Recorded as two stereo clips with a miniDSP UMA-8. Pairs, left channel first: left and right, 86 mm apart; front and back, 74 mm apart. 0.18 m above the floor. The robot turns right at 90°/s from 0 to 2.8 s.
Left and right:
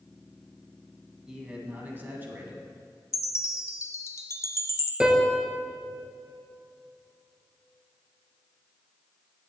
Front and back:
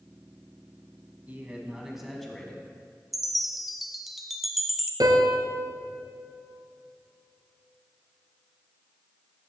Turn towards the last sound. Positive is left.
turn(degrees=-170)